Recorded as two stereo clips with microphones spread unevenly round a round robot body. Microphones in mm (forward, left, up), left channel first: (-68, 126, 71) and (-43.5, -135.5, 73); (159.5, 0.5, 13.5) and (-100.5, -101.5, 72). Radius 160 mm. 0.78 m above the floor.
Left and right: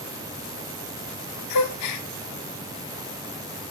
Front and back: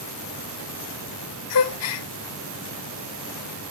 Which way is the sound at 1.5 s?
65° left.